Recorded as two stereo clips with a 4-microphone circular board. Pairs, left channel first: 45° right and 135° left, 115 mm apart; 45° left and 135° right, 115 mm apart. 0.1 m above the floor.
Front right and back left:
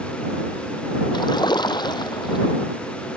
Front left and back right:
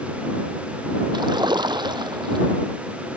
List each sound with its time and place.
1.1 s a splash: 90° right